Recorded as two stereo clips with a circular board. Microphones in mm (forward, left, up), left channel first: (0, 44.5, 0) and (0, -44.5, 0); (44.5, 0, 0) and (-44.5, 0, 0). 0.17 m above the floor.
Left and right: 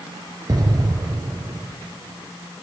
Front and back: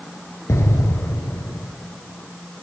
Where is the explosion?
55° right, 2.5 m.